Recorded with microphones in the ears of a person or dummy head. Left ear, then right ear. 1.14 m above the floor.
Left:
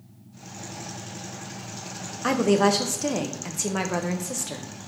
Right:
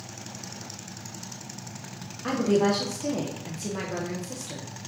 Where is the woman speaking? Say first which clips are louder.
Left 3 dB; 45° left (ahead or behind), 0.5 m.